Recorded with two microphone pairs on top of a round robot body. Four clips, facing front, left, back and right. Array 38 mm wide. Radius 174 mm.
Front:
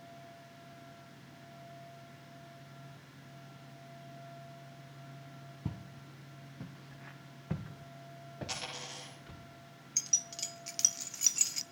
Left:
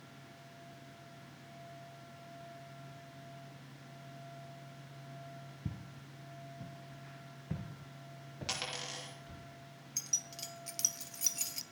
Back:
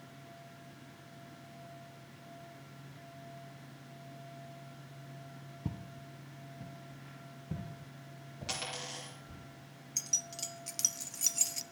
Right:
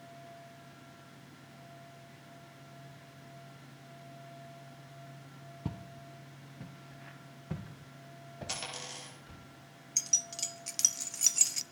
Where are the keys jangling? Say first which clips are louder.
Right 6 dB, front 2 dB; 70° right, 0.6 m.